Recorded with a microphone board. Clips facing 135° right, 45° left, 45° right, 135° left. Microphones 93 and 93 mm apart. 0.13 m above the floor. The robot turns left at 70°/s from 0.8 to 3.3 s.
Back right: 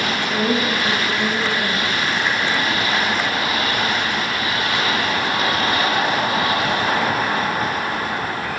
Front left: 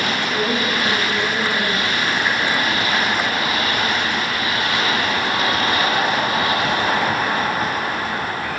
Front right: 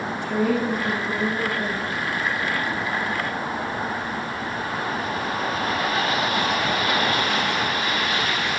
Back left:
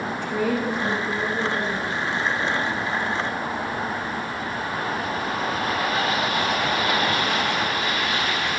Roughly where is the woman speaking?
Right.